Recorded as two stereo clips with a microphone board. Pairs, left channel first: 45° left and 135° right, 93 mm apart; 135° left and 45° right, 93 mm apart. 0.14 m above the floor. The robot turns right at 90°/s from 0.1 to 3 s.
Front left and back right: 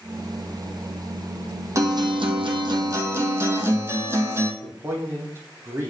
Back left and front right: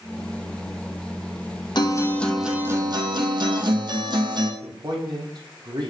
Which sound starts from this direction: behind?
A guitar, at 1.8 s.